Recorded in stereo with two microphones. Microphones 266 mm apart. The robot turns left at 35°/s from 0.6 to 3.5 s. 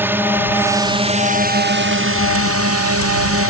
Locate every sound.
0.0 s a drone: 10° right; by 3.5 s 110° right